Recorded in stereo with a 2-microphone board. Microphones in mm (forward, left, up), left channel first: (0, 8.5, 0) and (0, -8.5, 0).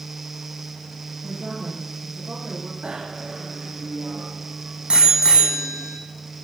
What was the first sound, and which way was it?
A woman speaking, 50° right (ahead or behind).